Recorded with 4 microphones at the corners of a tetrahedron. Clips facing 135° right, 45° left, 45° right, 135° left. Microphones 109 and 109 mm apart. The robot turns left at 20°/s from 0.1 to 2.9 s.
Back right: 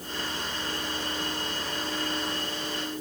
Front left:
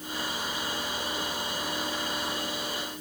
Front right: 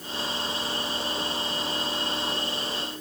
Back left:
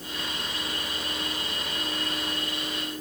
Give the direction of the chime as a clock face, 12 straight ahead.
I don't hear a chime.